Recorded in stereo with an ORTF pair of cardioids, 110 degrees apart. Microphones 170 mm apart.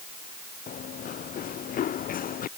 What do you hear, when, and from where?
0.7 s running footsteps: 55° left